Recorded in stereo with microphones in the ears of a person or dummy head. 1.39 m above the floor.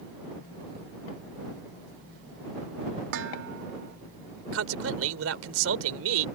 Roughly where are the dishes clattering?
Right.